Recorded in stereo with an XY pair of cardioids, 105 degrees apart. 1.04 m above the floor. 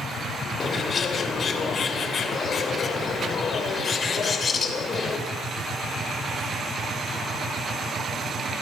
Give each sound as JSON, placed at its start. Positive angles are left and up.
{"t": 0.6, "sound": "a bird", "azimuth_deg": 40, "distance_m": 3.0}